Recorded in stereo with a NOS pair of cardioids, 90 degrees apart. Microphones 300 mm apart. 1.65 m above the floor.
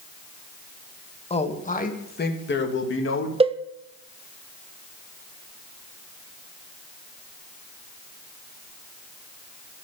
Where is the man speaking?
20° left, 2.5 m; by 3.3 s 40° left, 3.5 m.